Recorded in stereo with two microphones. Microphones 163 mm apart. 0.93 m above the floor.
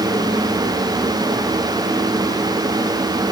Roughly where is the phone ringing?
No phone ringing in this recording.